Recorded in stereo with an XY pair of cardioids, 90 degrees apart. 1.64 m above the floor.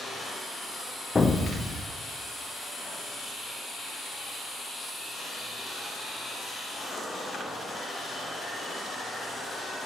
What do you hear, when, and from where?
1.1 s an explosion: 25° left, 0.7 m